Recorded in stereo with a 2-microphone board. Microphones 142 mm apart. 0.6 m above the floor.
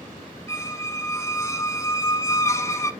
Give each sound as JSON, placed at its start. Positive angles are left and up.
{"t": 0.5, "sound": "a squeak", "side_deg": 20, "distance_m": 0.5}